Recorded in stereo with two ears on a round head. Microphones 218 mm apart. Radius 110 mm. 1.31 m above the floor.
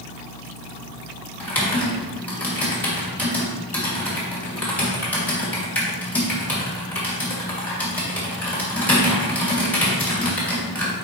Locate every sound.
1.4 s typing on a keyboard: 5° left (ahead or behind), 2.5 m